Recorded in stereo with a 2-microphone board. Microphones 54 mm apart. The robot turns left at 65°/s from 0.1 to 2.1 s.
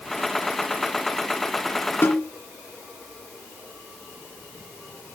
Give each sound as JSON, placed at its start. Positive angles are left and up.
{"t": 2.0, "sound": "a snare drum", "side_deg": 45, "distance_m": 2.5}